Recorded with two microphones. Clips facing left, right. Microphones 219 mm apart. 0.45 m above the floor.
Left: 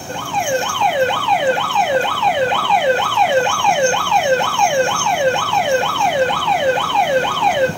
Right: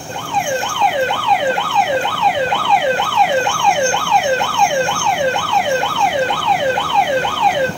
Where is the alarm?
Centre (ahead or behind), 2.5 m.